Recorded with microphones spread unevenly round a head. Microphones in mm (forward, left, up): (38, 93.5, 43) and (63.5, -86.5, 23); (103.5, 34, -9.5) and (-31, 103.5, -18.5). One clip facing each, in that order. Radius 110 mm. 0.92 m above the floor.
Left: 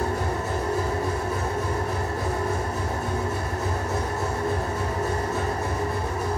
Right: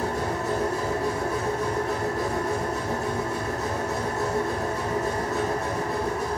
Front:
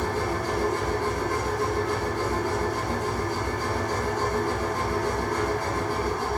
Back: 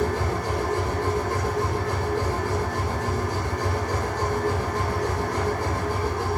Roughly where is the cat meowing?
I don't hear a cat meowing.